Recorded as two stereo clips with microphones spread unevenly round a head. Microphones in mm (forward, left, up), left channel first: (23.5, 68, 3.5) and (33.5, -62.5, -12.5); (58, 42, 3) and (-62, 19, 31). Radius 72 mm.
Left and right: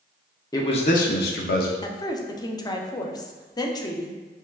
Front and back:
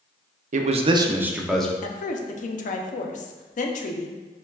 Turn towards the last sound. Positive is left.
turn(degrees=30)